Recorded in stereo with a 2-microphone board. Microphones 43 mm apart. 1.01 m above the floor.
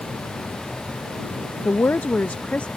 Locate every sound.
1.6 s a woman speaking: 70° left (ahead or behind); by 2.7 s 35° left (ahead or behind)